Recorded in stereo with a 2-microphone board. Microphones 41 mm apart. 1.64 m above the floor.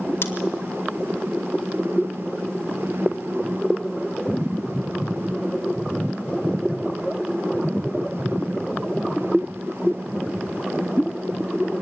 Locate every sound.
0.2 s scissors: 65° left (ahead or behind), 2.0 m